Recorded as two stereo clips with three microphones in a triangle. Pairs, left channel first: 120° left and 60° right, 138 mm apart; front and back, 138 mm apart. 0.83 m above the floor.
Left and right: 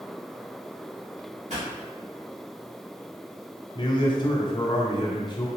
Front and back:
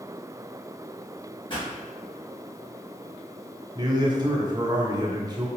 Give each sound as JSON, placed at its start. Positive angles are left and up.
{"t": 1.5, "sound": "a pop", "azimuth_deg": -50, "distance_m": 1.6}
{"t": 3.8, "sound": "a man speaking", "azimuth_deg": 145, "distance_m": 0.8}